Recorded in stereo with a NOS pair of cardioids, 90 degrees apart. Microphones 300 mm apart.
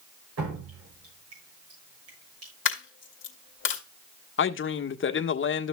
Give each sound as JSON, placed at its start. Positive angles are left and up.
{"t": 0.4, "sound": "dripping", "azimuth_deg": -55, "distance_m": 7.5}
{"t": 2.6, "sound": "a dropped coin", "azimuth_deg": 40, "distance_m": 2.0}
{"t": 4.4, "sound": "a man speaking", "azimuth_deg": 40, "distance_m": 1.3}